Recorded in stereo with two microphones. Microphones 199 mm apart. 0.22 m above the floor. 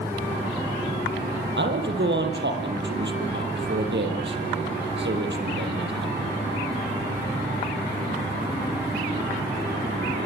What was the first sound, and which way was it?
A man speaking, 65° right (ahead or behind).